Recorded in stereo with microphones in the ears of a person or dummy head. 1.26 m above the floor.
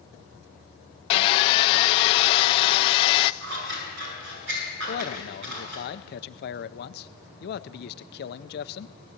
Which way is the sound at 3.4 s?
65° right (ahead or behind).